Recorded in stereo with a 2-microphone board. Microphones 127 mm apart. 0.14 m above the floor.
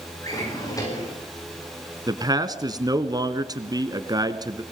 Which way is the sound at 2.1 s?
30° right (ahead or behind).